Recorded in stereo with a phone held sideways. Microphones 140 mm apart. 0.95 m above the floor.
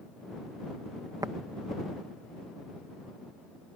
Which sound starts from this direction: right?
Tapping, at 1.2 s.